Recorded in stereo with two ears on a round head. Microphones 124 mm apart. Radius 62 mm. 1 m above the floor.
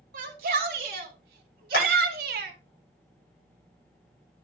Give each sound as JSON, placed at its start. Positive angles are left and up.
{"t": 0.1, "sound": "a shout", "side_deg": -60, "distance_m": 3.5}
{"t": 1.7, "sound": "hammering", "side_deg": 65, "distance_m": 10.0}